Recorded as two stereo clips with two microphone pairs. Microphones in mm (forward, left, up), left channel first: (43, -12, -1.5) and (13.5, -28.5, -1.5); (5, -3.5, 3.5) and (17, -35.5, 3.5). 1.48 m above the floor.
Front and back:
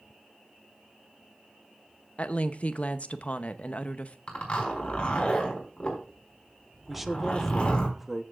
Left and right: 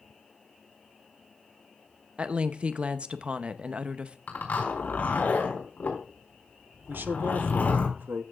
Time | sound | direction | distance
2.2 | a woman speaking | 20° right | 0.8 m
4.3 | a zipper | 90° left | 4.5 m
6.9 | a man speaking | 65° right | 0.9 m